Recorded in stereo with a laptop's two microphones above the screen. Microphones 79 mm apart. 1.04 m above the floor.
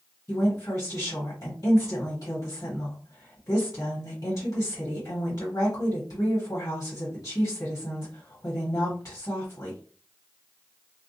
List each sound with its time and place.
0.3 s a woman speaking: 50° left (ahead or behind), 1.3 m